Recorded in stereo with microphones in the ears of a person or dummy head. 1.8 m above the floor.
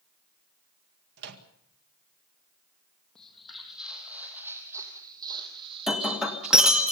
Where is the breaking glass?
Centre (ahead or behind), 1.7 m.